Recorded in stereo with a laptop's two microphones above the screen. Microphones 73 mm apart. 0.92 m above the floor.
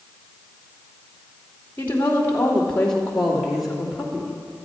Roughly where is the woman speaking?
Left.